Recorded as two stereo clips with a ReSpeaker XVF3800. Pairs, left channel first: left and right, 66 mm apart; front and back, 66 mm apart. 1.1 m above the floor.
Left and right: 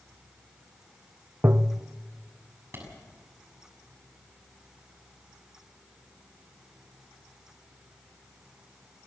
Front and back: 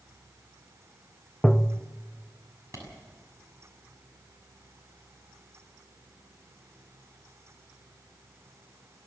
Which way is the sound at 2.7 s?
140° right.